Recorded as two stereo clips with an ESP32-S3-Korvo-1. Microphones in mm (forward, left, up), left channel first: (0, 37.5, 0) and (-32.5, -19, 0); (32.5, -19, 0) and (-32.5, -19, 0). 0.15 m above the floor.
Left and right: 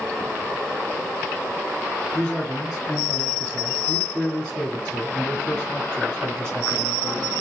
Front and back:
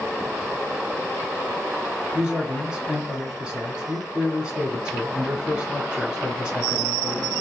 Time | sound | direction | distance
2.1 | a man speaking | 125° left | 1.1 m